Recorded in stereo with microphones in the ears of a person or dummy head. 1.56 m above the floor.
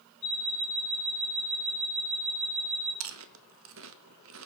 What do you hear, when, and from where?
0.2 s an alarm clock: 60° left (ahead or behind), 2.0 m
3.0 s chewing: 65° right (ahead or behind), 0.5 m